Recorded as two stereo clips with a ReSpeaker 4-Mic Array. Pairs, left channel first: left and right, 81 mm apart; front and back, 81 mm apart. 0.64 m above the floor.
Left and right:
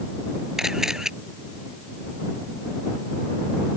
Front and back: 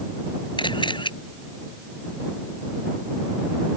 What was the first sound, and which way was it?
A camera shutter, 5° right.